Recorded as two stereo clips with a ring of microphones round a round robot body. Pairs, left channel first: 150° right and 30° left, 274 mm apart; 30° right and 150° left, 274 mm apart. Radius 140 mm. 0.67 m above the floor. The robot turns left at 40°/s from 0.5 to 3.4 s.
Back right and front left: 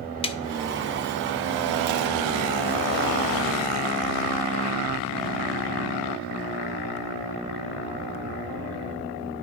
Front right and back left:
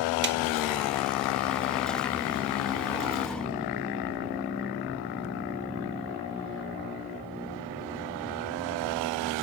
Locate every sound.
0.2 s a snare drum: 150° left, 0.5 m